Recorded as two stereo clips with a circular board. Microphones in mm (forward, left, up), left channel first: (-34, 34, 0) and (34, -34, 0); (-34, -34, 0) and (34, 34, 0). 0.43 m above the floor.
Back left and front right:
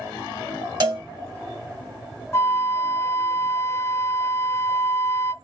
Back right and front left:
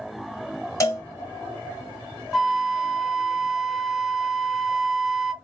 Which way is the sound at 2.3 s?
130° left.